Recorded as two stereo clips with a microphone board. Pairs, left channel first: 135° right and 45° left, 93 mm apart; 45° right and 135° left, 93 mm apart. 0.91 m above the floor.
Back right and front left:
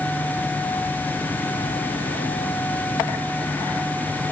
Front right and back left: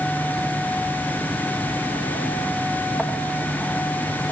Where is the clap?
I don't hear a clap.